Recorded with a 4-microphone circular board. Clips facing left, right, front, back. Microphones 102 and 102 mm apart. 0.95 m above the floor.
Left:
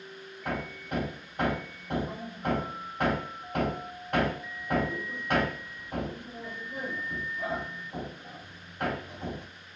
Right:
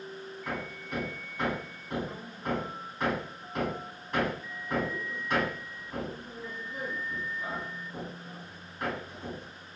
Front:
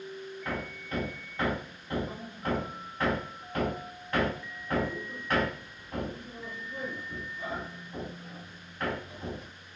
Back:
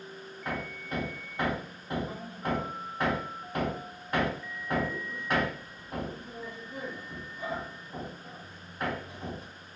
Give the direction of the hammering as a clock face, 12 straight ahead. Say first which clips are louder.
Left 4 dB, back 2 dB; 8 o'clock.